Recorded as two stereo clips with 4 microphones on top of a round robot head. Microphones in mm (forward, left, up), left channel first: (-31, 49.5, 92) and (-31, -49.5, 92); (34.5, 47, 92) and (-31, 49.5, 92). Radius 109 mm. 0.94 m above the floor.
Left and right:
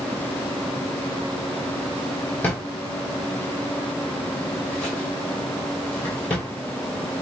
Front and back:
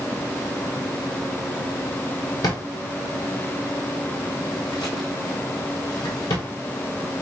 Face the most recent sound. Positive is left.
turn(degrees=10)